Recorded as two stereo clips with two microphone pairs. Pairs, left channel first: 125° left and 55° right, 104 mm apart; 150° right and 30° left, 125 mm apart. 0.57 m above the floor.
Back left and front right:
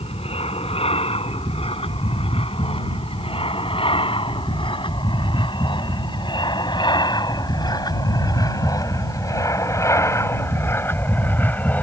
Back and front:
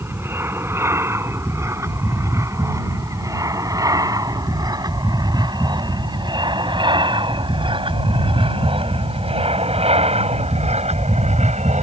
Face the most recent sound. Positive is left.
turn(degrees=50)